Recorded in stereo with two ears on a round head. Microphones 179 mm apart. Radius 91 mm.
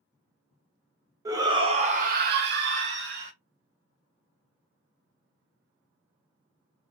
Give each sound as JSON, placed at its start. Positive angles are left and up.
{"t": 1.2, "sound": "a shout", "side_deg": -15, "distance_m": 0.9}